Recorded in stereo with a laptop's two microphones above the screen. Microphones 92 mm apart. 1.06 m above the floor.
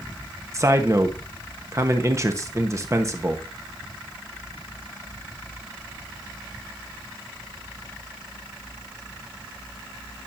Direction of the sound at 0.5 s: 35° right (ahead or behind).